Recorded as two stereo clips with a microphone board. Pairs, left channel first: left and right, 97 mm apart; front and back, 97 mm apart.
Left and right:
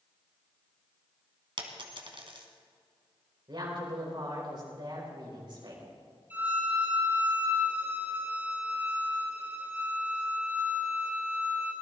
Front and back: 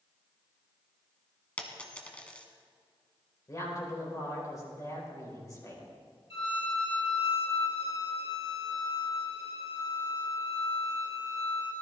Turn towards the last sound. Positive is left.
turn(degrees=-20)